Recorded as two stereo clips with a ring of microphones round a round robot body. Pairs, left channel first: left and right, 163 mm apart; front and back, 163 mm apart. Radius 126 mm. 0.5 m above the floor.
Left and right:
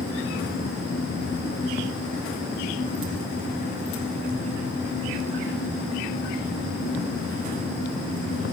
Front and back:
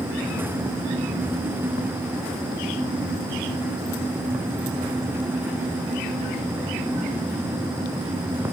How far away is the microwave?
I don't hear a microwave.